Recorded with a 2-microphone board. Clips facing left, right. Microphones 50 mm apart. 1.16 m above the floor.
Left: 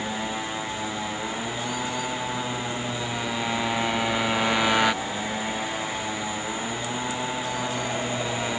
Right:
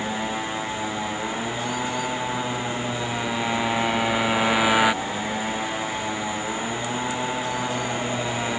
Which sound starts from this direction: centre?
A motorcycle, at 0.0 s.